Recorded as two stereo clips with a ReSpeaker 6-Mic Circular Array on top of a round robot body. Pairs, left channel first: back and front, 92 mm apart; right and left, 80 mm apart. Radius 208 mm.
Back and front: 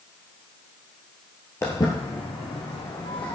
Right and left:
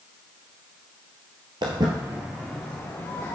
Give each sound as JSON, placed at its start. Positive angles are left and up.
{"t": 1.6, "sound": "footsteps", "azimuth_deg": 115, "distance_m": 1.3}